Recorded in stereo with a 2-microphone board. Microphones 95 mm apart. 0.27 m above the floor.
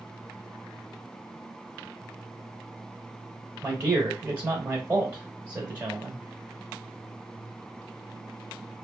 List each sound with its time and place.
3.6 s a man speaking: 20° right (ahead or behind), 1.0 m